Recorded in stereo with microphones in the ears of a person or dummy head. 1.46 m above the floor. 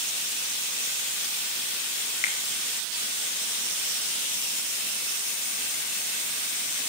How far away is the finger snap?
About 1.4 m.